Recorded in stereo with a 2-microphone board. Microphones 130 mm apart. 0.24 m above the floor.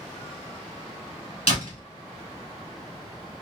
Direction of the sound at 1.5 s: 60° left (ahead or behind).